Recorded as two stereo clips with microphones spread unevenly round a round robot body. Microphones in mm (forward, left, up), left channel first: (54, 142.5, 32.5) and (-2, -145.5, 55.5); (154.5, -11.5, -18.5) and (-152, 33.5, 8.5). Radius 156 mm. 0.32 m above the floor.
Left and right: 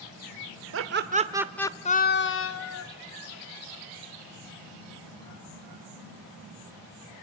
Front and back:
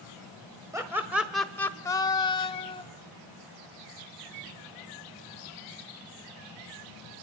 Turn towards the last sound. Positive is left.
turn(degrees=60)